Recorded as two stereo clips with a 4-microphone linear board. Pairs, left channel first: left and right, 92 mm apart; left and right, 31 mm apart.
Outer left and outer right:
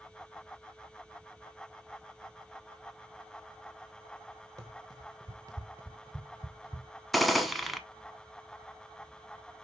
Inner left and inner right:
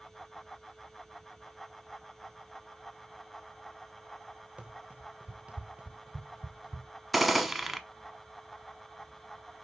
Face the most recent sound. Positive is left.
turn(degrees=0)  # may be behind; listen again after turning